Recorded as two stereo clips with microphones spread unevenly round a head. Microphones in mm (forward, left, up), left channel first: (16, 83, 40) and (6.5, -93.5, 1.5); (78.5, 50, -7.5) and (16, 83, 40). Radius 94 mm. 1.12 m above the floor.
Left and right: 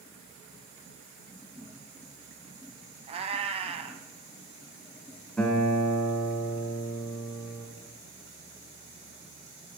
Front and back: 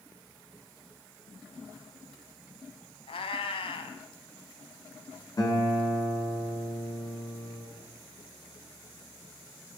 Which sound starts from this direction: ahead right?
A cat meowing, at 3.1 s.